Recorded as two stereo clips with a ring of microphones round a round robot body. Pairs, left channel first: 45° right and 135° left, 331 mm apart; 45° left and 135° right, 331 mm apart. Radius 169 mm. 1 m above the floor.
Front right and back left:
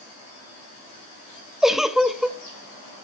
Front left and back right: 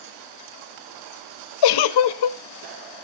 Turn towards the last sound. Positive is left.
turn(degrees=45)